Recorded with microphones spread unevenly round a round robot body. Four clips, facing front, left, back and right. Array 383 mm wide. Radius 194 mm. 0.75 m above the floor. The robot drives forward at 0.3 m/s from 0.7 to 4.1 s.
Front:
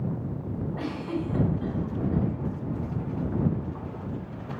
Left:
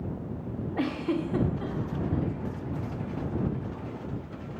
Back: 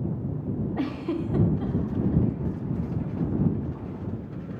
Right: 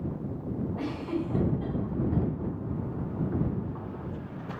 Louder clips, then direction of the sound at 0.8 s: Left 7 dB, back 2 dB; 135° left.